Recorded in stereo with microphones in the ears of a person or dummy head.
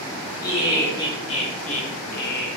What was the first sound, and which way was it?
Laughter, 20° left (ahead or behind).